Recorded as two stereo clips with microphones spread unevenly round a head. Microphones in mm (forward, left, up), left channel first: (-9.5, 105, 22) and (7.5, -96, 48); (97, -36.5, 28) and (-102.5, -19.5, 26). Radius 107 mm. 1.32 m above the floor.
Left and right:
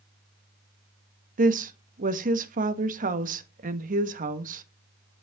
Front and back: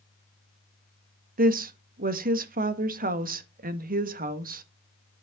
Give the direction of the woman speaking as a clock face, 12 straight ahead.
5 o'clock.